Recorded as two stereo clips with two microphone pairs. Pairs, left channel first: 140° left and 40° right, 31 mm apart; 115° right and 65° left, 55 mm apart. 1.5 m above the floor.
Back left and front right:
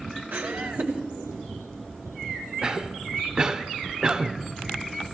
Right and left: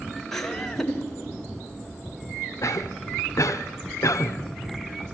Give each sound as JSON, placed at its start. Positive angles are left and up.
{"t": 0.3, "sound": "laughter", "azimuth_deg": -35, "distance_m": 1.7}
{"t": 2.6, "sound": "a cough", "azimuth_deg": -100, "distance_m": 0.8}